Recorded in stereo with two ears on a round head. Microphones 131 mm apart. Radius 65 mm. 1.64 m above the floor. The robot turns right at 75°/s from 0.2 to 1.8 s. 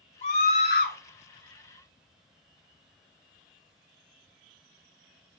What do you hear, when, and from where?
0.2 s a scream: 45° left, 1.6 m; by 1.0 s 100° left, 1.6 m